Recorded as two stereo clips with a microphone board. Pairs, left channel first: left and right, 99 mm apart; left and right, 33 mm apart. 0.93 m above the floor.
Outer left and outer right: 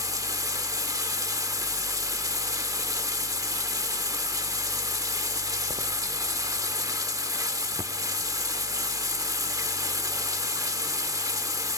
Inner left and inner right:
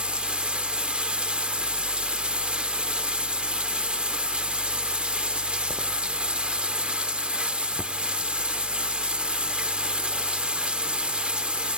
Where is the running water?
35° right (ahead or behind), 0.7 m.